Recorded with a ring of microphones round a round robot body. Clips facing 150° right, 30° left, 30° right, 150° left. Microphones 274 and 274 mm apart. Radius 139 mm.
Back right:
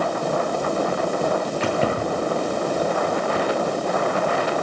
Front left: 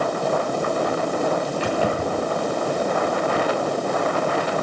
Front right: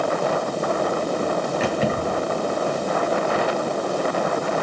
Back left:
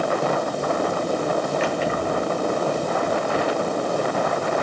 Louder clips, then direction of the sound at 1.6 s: Even, front right 1 dB; 80° right.